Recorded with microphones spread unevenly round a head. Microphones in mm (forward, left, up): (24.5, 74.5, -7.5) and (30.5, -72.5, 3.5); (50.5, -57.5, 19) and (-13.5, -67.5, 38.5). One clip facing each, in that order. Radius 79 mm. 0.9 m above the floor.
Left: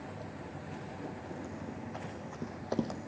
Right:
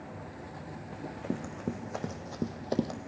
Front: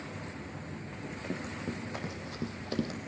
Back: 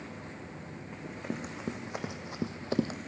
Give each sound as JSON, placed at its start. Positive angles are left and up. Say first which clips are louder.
{"t": 0.9, "sound": "running footsteps", "louder": "right 9 dB, back 1 dB", "azimuth_deg": -100, "distance_m": 3.0}